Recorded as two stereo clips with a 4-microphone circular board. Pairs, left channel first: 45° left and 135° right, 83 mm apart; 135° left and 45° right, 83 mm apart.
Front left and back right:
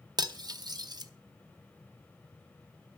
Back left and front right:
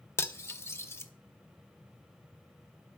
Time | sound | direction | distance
0.2 | cutlery clinking | 165° right | 0.8 m